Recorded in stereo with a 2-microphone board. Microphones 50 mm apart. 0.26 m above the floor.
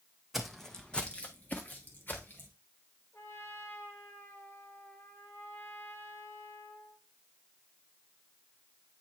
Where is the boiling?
I don't hear boiling.